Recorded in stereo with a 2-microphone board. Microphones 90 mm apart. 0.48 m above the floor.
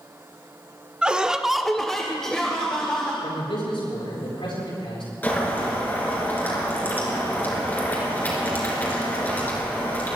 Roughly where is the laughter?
Centre.